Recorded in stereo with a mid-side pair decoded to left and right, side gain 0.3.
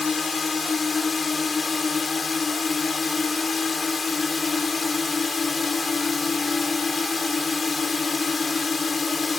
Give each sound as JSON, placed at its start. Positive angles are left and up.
{"t": 0.0, "sound": "a drone", "azimuth_deg": 50}